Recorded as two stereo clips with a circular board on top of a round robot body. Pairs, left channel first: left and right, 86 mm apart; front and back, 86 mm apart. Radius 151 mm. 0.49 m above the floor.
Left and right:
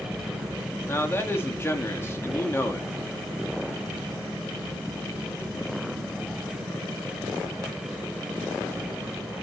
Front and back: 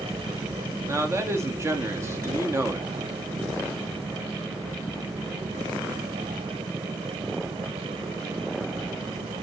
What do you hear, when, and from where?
0.9 s a man speaking: 140° left, 1.6 m